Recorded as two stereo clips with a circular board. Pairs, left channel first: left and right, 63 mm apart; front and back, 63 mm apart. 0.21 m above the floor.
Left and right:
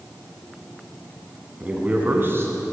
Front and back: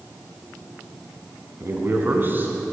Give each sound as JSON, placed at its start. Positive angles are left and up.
{"t": 1.6, "sound": "a man speaking", "azimuth_deg": -155, "distance_m": 2.0}